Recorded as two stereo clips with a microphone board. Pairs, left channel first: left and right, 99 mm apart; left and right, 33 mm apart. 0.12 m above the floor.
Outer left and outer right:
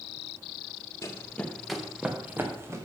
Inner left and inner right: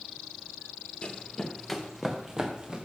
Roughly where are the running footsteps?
Left.